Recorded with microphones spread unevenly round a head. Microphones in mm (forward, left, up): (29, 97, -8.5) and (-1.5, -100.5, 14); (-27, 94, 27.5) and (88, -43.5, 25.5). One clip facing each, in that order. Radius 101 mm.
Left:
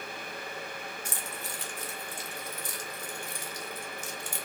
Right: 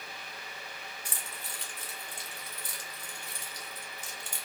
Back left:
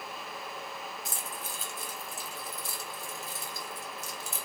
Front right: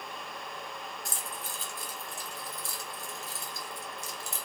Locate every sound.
1.1 s keys jangling: 45° left, 1.0 m